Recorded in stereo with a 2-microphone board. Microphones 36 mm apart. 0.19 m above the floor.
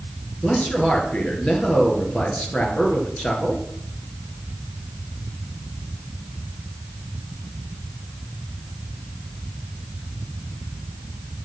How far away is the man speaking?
About 3 m.